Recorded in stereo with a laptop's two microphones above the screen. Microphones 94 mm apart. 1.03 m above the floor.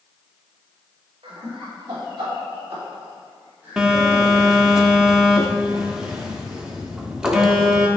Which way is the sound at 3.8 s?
10° right (ahead or behind).